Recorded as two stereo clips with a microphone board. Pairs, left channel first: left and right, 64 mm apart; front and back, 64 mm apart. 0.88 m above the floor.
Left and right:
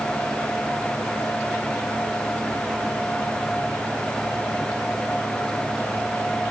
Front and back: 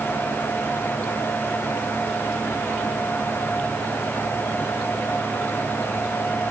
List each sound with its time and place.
Only background noise.